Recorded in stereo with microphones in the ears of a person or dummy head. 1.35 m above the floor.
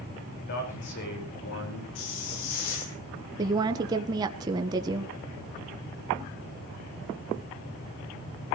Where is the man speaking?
55° left (ahead or behind), 5.5 m; by 1.9 s 70° left (ahead or behind), 5.5 m.